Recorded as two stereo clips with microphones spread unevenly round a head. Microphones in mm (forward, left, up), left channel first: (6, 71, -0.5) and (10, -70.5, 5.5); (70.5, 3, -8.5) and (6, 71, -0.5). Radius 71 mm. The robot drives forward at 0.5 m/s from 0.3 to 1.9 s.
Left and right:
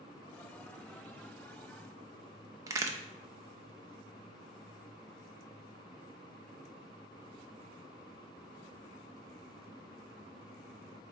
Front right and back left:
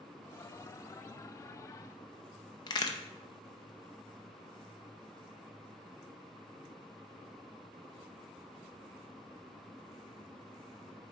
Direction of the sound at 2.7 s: 35° right.